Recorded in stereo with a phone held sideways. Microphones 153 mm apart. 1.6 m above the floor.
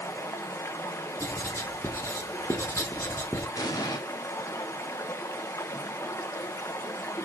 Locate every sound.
0.0 s running water: 20° left (ahead or behind), 0.8 m
1.2 s writing: 20° left (ahead or behind), 1.2 m
3.6 s an explosion: 25° left (ahead or behind), 1.1 m